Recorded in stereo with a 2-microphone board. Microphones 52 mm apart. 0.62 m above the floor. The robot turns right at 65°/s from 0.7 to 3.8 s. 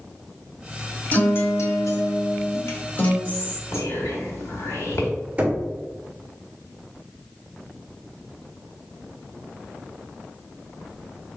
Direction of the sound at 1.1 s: 30° left.